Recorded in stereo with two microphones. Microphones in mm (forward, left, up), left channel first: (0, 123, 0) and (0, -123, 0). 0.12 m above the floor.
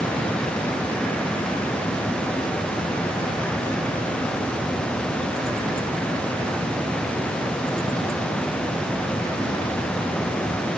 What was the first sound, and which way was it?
Only background noise.